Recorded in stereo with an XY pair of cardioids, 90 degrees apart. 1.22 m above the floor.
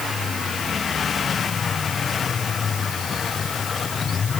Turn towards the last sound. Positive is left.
No sound to turn to.